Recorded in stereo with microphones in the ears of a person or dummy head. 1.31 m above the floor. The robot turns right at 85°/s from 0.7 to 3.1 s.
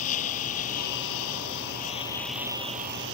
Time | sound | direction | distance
0.0 | a lawn mower | 45° left | ?